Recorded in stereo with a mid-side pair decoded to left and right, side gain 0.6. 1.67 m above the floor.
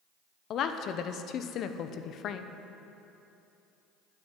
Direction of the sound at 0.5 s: 55° left.